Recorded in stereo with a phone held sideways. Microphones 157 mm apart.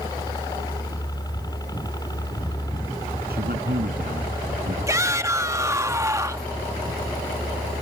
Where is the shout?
20° right (ahead or behind).